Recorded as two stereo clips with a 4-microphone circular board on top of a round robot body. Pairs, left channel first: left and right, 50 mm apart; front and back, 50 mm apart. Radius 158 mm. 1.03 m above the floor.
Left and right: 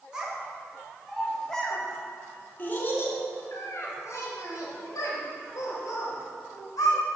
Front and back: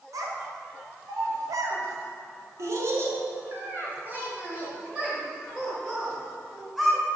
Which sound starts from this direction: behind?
A child speaking, at 0.1 s.